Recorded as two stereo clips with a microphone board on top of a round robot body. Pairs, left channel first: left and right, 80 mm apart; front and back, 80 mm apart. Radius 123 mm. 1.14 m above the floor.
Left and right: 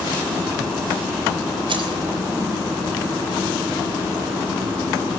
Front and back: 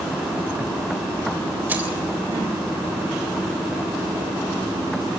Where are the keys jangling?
110° right, 3.5 m.